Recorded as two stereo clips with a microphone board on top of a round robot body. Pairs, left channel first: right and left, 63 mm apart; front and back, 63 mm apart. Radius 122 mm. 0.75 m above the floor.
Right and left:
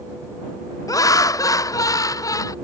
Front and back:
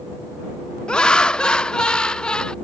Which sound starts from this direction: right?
Laughter, at 0.9 s.